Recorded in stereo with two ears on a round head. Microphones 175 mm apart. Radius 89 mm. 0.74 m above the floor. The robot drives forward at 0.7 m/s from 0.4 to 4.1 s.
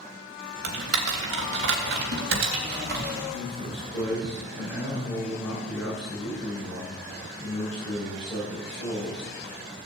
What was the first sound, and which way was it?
Typing on a keyboard, 80° right.